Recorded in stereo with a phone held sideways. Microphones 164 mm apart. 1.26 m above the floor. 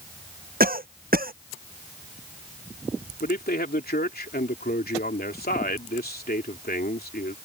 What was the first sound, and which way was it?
A cough, 65° right (ahead or behind).